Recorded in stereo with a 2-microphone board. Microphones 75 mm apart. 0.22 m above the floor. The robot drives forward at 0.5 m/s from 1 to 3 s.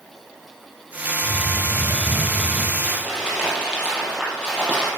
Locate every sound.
1.2 s a hiss: 35° right (ahead or behind), 5.5 m; by 2.7 s 30° right (ahead or behind), 6 m
2.8 s crumpling: 10° right (ahead or behind), 6 m